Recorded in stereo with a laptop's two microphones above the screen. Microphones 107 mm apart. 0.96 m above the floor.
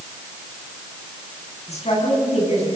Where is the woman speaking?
85° left, 8.5 m.